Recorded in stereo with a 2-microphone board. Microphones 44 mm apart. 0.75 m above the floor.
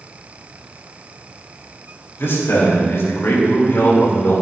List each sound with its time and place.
2.2 s a man speaking: 70° left (ahead or behind), 3.5 m; by 4.4 s 65° left (ahead or behind), 2.5 m